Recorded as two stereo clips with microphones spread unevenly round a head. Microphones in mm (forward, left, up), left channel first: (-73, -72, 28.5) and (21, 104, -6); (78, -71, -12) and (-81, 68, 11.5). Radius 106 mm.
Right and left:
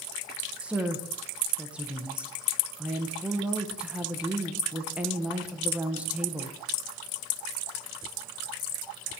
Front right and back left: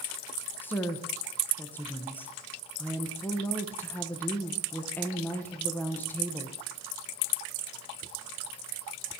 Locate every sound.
0.6 s a woman speaking: 10° left, 0.7 m